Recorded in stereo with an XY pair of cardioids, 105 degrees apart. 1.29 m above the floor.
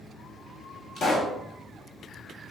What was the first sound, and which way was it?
A pop, 60° left.